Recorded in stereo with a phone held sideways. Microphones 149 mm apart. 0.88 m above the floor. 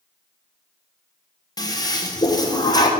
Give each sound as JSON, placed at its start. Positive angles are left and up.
{"t": 1.6, "sound": "a toilet flushing", "side_deg": 25, "distance_m": 1.3}